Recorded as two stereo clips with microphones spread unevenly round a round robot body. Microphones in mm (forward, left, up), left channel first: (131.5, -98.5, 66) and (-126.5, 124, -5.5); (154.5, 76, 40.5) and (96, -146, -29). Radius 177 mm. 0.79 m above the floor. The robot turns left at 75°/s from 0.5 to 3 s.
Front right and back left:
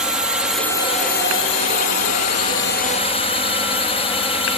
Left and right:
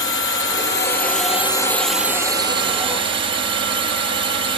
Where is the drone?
70° left; by 4.6 s 120° right.